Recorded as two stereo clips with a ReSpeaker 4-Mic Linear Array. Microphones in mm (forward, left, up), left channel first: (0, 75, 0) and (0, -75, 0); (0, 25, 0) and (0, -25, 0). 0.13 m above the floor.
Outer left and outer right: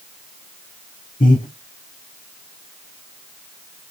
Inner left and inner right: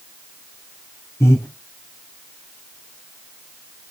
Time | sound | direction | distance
1.2 | breathing | 70° left (ahead or behind) | 1.2 m